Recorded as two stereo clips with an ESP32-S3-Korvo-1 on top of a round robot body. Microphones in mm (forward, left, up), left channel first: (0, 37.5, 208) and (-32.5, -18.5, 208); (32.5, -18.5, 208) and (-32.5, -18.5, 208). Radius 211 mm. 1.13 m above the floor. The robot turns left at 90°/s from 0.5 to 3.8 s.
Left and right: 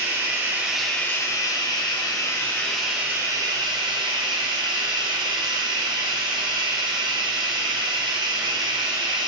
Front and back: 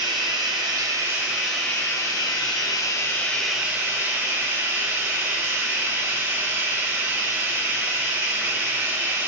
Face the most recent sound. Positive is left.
turn(degrees=-120)